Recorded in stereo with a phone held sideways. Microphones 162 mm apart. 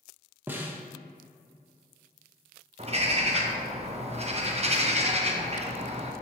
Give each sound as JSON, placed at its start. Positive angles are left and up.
{"t": 0.5, "sound": "a snare drum", "side_deg": -10, "distance_m": 0.8}
{"t": 2.8, "sound": "a bird", "side_deg": -40, "distance_m": 0.7}